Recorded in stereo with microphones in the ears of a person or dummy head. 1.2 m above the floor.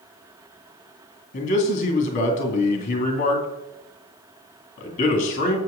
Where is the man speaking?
40° left (ahead or behind), 2.0 m.